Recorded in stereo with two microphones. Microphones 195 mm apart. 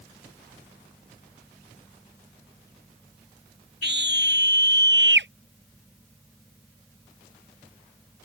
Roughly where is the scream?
Right.